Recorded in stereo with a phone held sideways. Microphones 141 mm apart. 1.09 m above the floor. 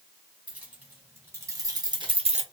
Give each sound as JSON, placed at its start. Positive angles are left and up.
{"t": 0.5, "sound": "keys jangling", "side_deg": -10, "distance_m": 1.7}